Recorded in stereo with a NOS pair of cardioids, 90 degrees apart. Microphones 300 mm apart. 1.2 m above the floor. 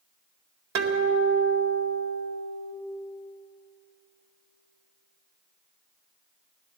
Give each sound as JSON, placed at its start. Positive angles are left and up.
{"t": 0.8, "sound": "a guitar", "azimuth_deg": -60, "distance_m": 2.0}